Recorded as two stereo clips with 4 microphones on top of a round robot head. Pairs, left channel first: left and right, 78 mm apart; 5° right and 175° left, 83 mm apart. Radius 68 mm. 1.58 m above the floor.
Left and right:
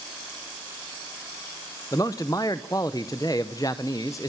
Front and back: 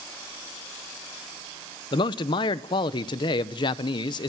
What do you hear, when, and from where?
1.9 s a man speaking: 25° left, 0.7 m